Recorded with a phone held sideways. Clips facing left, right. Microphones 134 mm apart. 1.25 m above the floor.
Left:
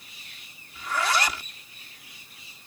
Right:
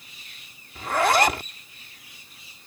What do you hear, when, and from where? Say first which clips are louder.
0.8 s a zipper: right 7 dB; 55° right (ahead or behind)